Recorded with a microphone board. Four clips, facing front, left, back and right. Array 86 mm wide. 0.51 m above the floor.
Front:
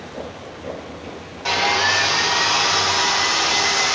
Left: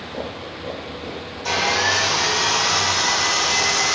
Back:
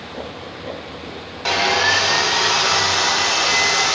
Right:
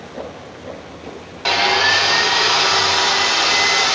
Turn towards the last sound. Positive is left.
turn(degrees=-110)